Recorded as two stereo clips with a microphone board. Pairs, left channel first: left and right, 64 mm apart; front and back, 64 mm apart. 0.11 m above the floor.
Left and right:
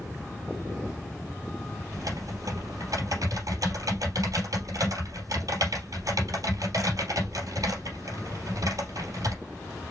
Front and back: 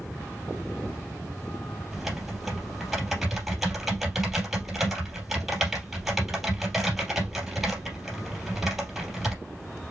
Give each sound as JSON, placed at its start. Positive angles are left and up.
{"t": 1.9, "sound": "typing on a keyboard", "azimuth_deg": -95, "distance_m": 3.5}